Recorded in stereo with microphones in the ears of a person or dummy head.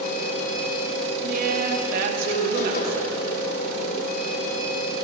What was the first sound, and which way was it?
A machine running, 55° left (ahead or behind).